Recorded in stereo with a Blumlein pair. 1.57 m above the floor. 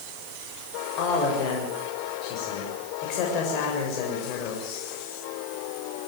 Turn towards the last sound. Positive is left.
turn(degrees=40)